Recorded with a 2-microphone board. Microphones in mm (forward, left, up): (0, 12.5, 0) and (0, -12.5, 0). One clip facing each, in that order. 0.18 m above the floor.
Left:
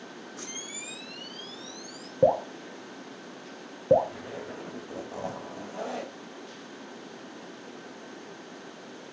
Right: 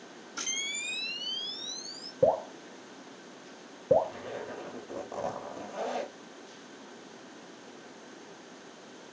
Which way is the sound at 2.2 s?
15° left (ahead or behind).